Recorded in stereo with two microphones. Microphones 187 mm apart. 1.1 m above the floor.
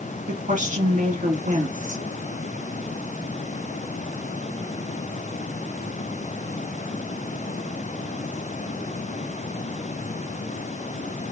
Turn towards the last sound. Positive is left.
turn(degrees=-40)  # may be behind; listen again after turning